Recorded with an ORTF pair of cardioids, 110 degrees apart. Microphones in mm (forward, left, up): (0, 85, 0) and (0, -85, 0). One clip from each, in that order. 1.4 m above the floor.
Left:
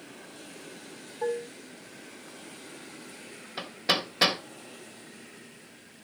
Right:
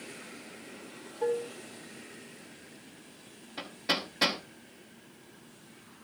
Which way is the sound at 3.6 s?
45° left.